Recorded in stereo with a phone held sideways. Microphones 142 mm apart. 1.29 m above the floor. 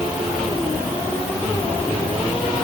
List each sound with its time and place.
Only background noise.